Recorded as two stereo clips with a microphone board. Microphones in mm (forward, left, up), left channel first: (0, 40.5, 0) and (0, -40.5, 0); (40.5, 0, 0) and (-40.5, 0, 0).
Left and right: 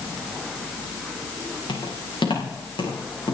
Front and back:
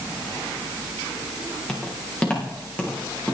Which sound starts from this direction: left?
Footsteps, at 1.7 s.